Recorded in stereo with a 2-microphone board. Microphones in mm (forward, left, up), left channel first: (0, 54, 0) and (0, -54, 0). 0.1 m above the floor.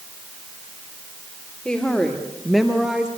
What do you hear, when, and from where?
1.6 s a woman speaking: 5° left (ahead or behind), 4 m; by 3.1 s 5° right (ahead or behind), 3.5 m